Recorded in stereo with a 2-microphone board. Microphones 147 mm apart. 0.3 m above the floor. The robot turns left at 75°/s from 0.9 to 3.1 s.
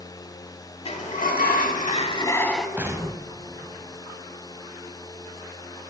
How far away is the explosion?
About 0.7 m.